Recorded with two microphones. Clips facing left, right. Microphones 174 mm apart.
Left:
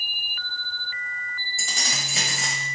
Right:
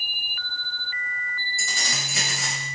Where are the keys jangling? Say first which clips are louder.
Left 1 dB; 25° left (ahead or behind), 0.8 m.